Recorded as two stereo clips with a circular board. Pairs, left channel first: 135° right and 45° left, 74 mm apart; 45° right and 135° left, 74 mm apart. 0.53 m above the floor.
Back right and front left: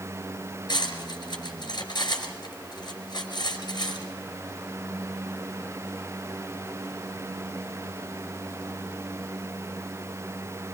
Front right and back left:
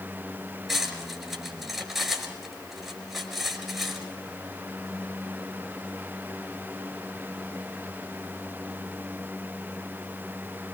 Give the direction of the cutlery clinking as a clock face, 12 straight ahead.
5 o'clock.